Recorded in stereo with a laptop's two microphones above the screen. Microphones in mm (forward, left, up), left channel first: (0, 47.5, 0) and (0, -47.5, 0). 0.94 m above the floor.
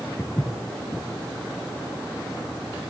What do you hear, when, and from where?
0.2 s footsteps: 25° left (ahead or behind), 1.0 m